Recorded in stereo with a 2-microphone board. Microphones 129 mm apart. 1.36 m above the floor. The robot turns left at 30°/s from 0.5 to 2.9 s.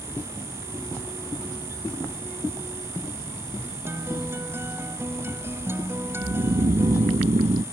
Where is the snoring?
55° right (ahead or behind).